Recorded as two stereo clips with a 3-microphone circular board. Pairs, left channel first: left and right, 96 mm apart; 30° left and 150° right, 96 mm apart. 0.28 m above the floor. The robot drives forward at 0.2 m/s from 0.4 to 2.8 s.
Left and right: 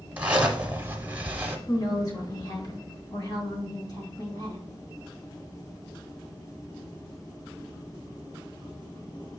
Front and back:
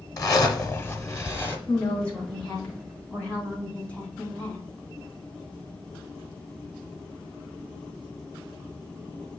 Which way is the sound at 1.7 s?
95° left.